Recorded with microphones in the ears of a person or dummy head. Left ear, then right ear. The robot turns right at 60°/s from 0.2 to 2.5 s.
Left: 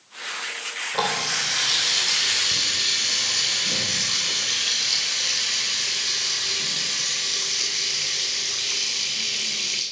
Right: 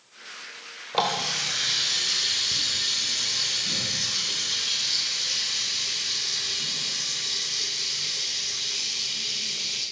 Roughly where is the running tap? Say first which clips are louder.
Even; right.